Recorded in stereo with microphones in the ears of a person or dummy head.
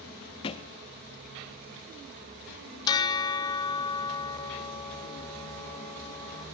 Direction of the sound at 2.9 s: 20° left (ahead or behind).